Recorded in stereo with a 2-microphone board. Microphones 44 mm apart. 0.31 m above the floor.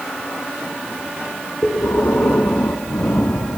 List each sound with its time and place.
1.6 s breathing: 70° left (ahead or behind), 1.2 m